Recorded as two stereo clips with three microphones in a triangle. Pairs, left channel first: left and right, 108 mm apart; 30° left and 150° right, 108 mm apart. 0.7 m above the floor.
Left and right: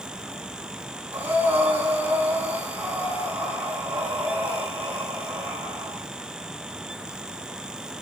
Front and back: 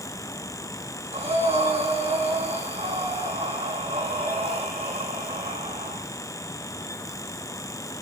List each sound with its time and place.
1.1 s breathing: 165° right, 8 m